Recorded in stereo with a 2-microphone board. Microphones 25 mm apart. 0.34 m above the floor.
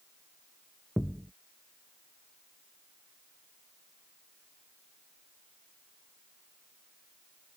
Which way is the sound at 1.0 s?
35° left (ahead or behind).